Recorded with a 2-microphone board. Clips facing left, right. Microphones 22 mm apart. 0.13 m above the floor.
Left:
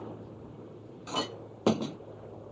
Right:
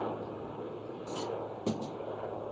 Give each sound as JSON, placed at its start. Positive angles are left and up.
{"t": 0.0, "sound": "a helicopter", "side_deg": -70}
{"t": 1.1, "sound": "a clink", "side_deg": 70}